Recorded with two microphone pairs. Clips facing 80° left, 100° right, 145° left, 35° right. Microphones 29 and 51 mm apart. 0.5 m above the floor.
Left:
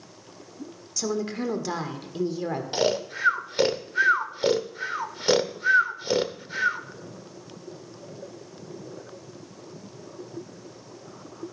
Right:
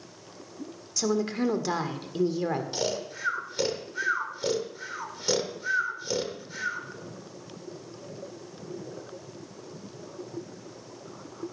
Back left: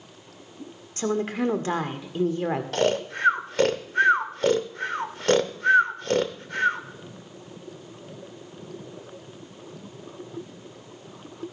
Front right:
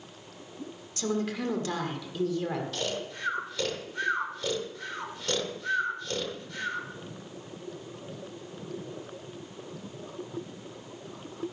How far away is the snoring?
About 0.9 m.